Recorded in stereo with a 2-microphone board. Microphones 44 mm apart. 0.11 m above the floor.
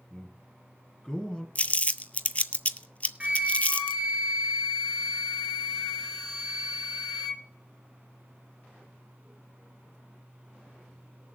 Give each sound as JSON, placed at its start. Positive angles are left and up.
{"t": 0.1, "sound": "a man speaking", "side_deg": 15, "distance_m": 1.5}
{"t": 1.6, "sound": "crumpling", "side_deg": 35, "distance_m": 0.5}
{"t": 3.2, "sound": "a flute", "side_deg": -25, "distance_m": 1.6}